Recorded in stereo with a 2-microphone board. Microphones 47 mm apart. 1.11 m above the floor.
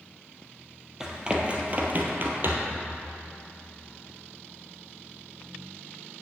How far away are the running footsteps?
About 1.7 m.